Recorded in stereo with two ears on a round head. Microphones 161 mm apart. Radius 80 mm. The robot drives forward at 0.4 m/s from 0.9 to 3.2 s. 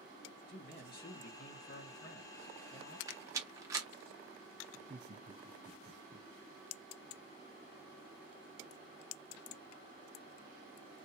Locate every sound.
0.5 s a man speaking: 50° left (ahead or behind), 2.5 m; by 3.0 s 70° left (ahead or behind), 2.0 m
3.1 s a rattle: 20° right (ahead or behind), 1.0 m; by 3.9 s 15° right (ahead or behind), 1.1 m
4.7 s laughter: 35° right (ahead or behind), 0.8 m